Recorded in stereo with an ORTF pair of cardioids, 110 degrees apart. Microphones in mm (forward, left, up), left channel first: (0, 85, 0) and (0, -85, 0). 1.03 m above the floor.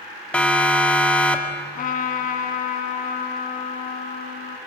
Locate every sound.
0.3 s a siren: 5° left, 2.5 m
1.8 s a trumpet: 55° left, 2.5 m